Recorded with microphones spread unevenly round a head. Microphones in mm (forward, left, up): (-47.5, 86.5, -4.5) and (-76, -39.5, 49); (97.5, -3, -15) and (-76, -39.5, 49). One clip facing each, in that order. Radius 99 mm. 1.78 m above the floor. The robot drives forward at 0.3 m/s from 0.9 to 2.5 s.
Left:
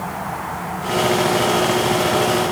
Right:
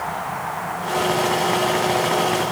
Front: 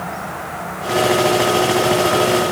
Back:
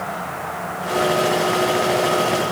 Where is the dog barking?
No dog barking in this recording.